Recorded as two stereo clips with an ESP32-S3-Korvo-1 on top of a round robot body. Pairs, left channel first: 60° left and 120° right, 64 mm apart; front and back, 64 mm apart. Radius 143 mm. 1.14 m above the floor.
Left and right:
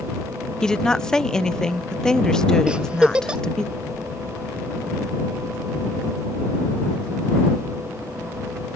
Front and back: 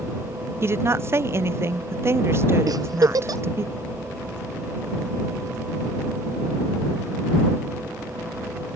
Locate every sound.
0.6 s a woman speaking: 140° left
2.7 s a giggle: 165° left